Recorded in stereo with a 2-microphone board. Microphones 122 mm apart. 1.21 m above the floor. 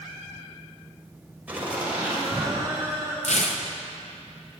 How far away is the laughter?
About 4.5 m.